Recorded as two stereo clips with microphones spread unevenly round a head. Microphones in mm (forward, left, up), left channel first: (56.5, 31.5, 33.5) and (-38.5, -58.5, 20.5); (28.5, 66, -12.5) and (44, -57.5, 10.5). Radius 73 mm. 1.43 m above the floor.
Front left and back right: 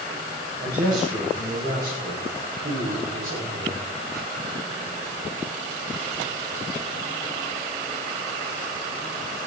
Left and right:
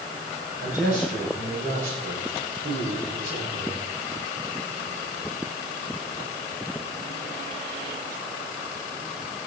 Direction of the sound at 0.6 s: 125° right.